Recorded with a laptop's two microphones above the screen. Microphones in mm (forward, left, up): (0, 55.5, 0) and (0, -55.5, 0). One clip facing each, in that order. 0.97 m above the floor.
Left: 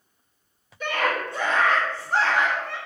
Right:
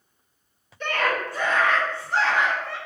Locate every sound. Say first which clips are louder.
0.8 s a scream: even; 5° left (ahead or behind), 1.0 m; by 2.8 s 55° left (ahead or behind), 1.6 m